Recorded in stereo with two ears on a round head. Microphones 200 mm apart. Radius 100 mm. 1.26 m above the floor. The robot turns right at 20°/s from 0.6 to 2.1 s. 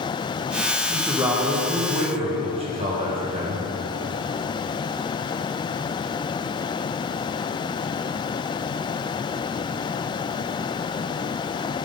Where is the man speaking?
5° right (ahead or behind), 1.2 m; by 3.6 s 30° right (ahead or behind), 1.2 m.